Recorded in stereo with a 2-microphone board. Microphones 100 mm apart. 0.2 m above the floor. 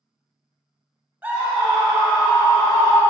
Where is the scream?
15° right (ahead or behind), 1.7 m; by 3.0 s centre (ahead or behind), 1.9 m.